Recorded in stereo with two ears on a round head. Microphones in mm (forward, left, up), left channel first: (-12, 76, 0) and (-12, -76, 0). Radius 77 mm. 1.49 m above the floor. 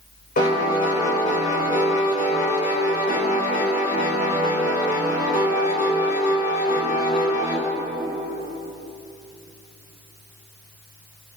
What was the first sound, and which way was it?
A piano, 55° left (ahead or behind).